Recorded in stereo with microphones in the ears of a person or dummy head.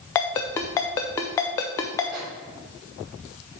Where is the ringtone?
15° left (ahead or behind), 0.5 m.